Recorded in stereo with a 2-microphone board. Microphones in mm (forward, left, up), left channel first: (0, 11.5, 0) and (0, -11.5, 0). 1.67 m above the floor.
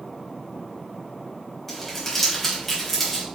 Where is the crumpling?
10° left (ahead or behind), 3.5 m.